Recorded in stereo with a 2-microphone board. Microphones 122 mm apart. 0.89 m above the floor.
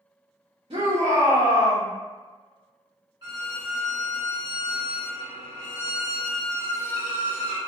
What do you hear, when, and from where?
0.7 s a shout: 50° right (ahead or behind), 1.0 m
3.2 s a violin: 35° right (ahead or behind), 1.5 m